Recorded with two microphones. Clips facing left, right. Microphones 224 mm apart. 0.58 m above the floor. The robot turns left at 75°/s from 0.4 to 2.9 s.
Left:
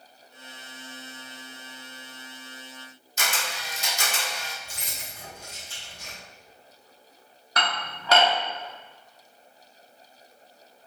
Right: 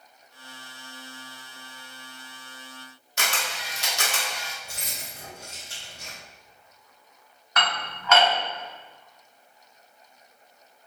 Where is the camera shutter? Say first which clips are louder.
Even; 70° right (ahead or behind), 0.7 m.